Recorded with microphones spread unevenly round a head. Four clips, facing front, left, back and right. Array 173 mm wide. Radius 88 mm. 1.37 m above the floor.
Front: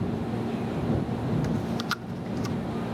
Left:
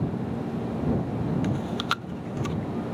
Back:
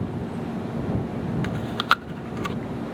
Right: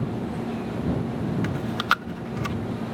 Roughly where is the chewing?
Behind.